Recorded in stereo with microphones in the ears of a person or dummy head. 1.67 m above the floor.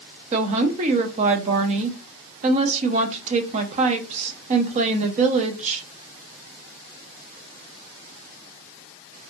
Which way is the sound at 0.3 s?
35° right (ahead or behind).